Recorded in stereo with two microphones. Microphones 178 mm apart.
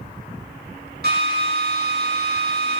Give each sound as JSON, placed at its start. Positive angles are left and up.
{"t": 1.0, "sound": "a drill", "side_deg": -65, "distance_m": 8.0}